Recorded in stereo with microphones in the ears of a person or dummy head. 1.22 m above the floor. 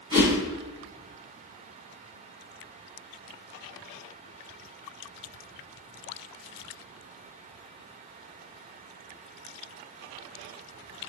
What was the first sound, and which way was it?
A whoosh, 20° right (ahead or behind).